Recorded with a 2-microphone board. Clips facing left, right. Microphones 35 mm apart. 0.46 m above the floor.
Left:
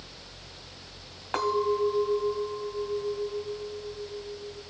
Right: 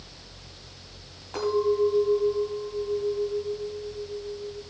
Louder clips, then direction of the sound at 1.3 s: Right 2 dB; 55° left (ahead or behind).